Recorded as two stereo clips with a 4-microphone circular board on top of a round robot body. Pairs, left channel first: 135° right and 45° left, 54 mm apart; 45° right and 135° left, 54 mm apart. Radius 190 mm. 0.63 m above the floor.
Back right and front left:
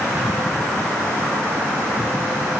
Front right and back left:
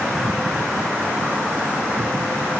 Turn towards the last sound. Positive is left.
No sound to turn to.